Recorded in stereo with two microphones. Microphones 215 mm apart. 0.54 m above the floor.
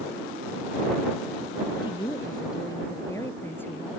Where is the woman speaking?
20° left (ahead or behind); by 4.0 s 5° left (ahead or behind).